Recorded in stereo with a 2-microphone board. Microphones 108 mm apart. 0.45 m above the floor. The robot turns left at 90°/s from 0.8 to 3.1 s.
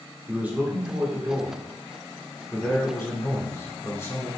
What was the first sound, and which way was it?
A man speaking, 15° right (ahead or behind).